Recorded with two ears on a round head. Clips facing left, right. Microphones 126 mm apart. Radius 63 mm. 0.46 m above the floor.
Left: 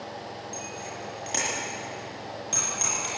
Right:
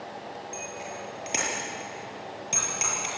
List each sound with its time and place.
0.5 s a bicycle bell: 20° right (ahead or behind), 8 m